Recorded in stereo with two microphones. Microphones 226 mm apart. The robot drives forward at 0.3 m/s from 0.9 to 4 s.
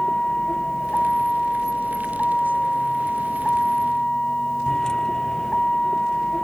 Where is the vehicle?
5° left (ahead or behind).